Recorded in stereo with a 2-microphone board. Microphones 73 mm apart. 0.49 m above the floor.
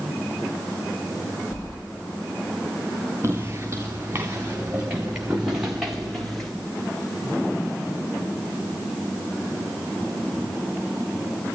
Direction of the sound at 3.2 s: 35° right (ahead or behind).